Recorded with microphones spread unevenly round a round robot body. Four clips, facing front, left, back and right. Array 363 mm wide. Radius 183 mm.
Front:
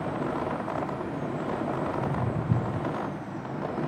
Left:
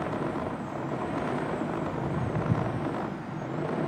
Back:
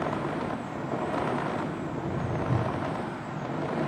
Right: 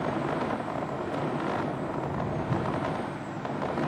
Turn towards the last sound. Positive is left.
turn(degrees=30)